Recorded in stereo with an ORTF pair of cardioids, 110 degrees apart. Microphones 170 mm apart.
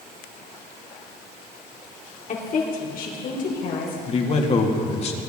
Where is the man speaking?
40° left, 2 m.